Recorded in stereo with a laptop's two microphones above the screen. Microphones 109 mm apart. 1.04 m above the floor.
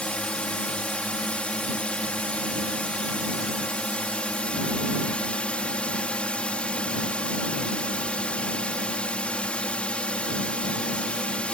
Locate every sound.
0.0 s a drone: 10° left (ahead or behind)